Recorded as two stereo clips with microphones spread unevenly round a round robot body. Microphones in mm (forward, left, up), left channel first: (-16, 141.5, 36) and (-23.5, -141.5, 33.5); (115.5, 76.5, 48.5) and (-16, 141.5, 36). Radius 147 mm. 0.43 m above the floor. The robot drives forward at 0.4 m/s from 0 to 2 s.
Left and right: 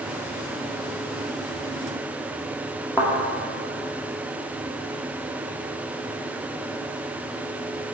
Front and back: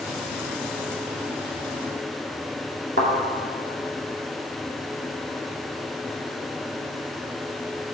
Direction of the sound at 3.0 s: 175° left.